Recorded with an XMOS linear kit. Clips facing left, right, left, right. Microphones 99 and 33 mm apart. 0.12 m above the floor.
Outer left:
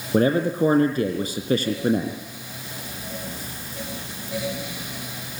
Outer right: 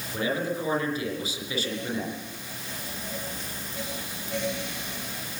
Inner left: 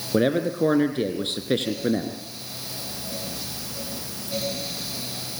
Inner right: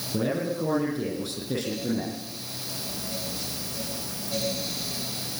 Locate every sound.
0.1 s a man speaking: 55° left (ahead or behind), 3.5 m